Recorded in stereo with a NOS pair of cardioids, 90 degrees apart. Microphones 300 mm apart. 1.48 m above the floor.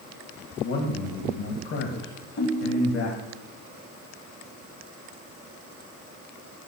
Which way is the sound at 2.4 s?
60° left.